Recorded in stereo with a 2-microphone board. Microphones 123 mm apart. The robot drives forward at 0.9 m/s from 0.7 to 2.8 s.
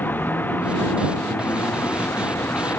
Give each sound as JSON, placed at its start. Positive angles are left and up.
{"t": 0.0, "sound": "a vehicle", "side_deg": 15}